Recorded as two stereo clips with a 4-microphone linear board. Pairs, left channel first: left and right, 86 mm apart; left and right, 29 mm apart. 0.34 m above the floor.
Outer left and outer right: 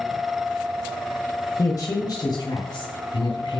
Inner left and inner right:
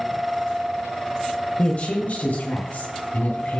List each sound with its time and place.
1.6 s a woman speaking: 40° left (ahead or behind), 1.2 m; by 3.6 s 70° left (ahead or behind), 2.5 m